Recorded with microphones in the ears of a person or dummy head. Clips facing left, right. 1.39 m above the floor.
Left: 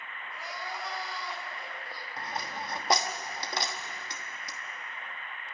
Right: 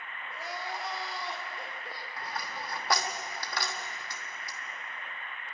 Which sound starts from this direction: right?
Crying, at 0.3 s.